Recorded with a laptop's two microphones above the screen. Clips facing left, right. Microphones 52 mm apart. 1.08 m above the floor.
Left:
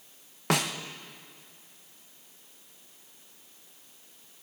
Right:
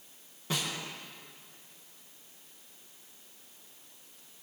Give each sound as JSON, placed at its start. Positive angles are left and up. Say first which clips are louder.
{"t": 0.5, "sound": "a snare drum", "louder": "left 7 dB", "side_deg": 65, "distance_m": 0.8}